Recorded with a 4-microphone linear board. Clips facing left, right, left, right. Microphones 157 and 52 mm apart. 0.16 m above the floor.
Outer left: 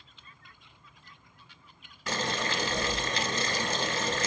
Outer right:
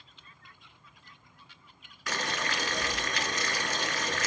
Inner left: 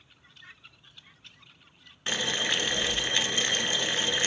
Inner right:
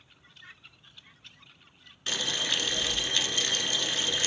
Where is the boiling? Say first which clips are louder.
Outer left 3 dB, inner left 2 dB; 25° left (ahead or behind), 1.0 m.